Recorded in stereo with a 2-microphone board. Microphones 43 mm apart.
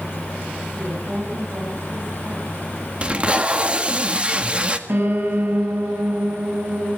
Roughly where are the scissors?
No scissors in this recording.